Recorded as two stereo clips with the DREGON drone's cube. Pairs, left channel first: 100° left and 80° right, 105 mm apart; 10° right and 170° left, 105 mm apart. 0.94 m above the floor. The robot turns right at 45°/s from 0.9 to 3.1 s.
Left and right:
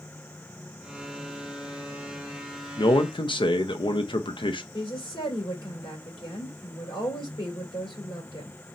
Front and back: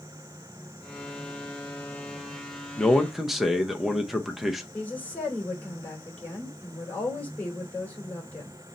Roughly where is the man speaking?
Ahead left.